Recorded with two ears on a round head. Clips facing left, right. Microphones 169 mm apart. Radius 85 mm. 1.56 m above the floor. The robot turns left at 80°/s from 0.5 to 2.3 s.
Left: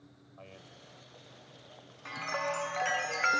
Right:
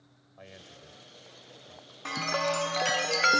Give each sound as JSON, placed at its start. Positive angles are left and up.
{"t": 0.4, "sound": "a man speaking", "side_deg": -15}
{"t": 2.0, "sound": "a chime", "side_deg": -65}